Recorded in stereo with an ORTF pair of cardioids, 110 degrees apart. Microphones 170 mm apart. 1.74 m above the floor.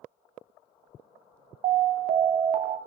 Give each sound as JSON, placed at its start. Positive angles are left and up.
{"t": 1.6, "sound": "an alarm", "azimuth_deg": -55, "distance_m": 0.5}